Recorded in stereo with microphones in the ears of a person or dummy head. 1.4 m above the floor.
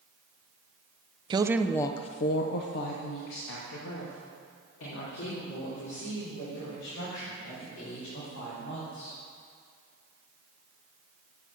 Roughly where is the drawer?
No drawer in this recording.